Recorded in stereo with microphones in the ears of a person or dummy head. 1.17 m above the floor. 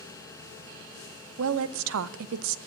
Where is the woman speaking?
85° right, 0.6 m.